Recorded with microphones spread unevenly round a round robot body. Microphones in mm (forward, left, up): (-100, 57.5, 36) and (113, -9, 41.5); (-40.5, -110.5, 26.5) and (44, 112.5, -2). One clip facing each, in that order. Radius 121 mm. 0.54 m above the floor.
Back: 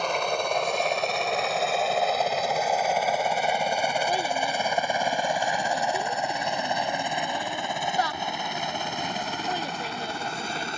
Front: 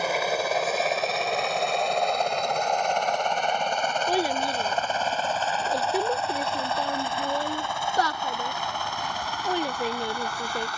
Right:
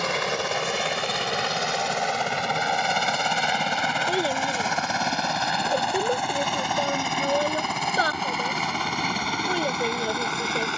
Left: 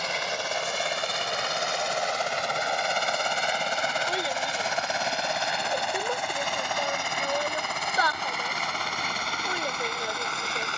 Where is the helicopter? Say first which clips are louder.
Front 1 dB, right 6 dB; 100° right; by 10.8 s 130° right.